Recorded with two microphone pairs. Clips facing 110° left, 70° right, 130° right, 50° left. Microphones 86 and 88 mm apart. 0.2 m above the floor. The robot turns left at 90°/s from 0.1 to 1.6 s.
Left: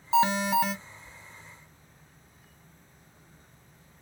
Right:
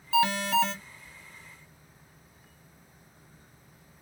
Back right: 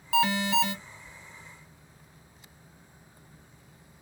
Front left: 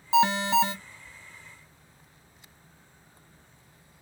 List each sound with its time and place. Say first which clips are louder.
0.1 s an alarm: left 1 dB, front left 3 dB; 90° left, 0.7 m; by 0.8 s 35° left, 0.7 m